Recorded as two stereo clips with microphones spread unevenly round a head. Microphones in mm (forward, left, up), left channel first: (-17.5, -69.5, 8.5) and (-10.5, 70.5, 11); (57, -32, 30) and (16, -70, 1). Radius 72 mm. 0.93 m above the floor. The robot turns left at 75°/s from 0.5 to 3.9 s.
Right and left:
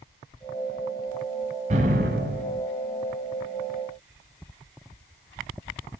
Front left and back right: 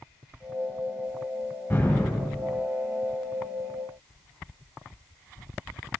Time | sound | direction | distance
1.7 | an explosion | 125° left | 7.5 m